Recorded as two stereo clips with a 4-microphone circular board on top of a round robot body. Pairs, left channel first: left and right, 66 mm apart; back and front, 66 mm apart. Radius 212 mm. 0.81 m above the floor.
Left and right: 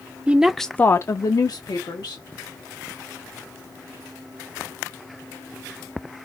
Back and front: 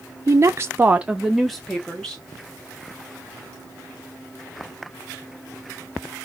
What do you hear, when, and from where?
0.3 s a woman speaking: 25° right, 0.6 m; by 2.2 s 105° left, 1.1 m